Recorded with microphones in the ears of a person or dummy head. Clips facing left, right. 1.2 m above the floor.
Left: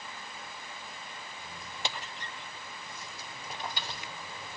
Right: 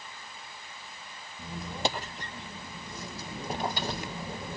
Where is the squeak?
40° right (ahead or behind).